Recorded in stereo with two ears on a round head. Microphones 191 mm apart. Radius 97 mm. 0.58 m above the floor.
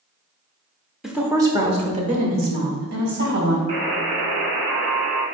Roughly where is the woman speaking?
Centre.